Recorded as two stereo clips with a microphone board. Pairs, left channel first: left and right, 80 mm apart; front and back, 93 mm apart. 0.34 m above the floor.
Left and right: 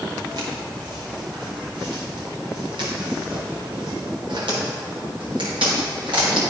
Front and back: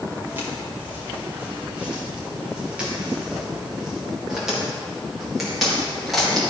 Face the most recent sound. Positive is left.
turn(degrees=-90)